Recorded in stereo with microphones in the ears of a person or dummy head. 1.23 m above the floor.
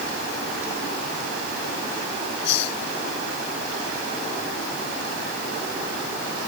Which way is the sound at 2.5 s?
70° left (ahead or behind).